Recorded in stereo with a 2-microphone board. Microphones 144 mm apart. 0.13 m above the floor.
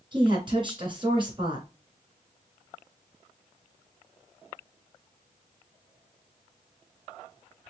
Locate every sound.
0.1 s a woman speaking: 35° right (ahead or behind), 1.9 m